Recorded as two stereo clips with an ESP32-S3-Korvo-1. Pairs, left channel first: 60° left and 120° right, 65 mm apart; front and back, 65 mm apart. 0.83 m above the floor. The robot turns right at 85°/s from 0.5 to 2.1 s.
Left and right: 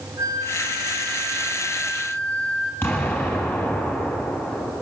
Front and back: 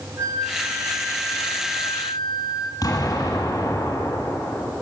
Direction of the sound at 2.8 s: 5° left.